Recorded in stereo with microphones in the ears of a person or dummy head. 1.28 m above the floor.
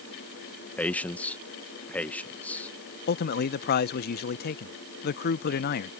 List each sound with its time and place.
0.8 s a man speaking: 10° left (ahead or behind)
3.1 s a man speaking: 55° left (ahead or behind)